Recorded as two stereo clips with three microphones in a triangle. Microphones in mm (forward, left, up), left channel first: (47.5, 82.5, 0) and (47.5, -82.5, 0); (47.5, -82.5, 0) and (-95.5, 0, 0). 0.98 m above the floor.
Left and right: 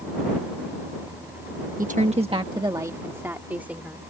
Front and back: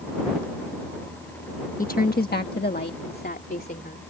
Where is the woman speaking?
60° right; by 4.0 s 5° right.